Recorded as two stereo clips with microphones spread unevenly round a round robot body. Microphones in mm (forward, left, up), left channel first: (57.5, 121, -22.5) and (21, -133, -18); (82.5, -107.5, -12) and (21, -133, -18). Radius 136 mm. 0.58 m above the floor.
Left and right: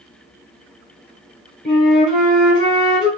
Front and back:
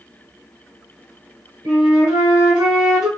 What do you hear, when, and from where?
1.6 s a flute: 155° left, 1.2 m